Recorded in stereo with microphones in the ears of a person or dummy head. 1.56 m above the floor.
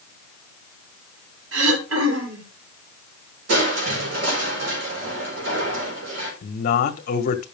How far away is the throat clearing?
About 4.5 m.